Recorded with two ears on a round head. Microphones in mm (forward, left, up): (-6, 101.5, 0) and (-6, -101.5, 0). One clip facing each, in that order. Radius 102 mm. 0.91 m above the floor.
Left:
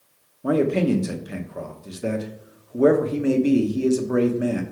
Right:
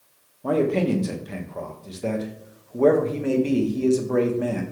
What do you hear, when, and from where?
0.4 s a man speaking: 15° left (ahead or behind), 0.9 m